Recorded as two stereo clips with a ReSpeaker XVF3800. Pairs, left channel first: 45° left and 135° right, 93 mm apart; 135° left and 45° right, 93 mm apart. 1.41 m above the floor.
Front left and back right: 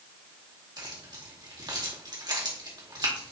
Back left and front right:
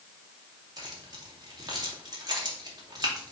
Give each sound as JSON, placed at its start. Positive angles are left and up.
{"t": 0.8, "sound": "keys jangling", "azimuth_deg": -95, "distance_m": 2.5}